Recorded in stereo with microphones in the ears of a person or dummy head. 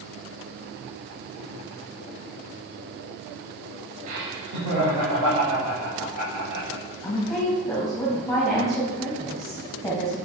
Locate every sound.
4.1 s laughter: 40° right (ahead or behind), 0.8 m; by 6.8 s 85° right, 4 m
7.0 s a woman speaking: centre (ahead or behind), 1.3 m